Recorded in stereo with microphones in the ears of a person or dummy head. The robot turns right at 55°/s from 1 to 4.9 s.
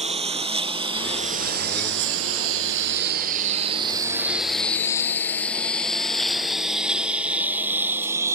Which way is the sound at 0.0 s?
40° right (ahead or behind).